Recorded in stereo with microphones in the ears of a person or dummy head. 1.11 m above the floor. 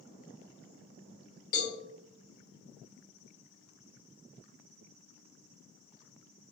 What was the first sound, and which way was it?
A cowbell, 45° left (ahead or behind).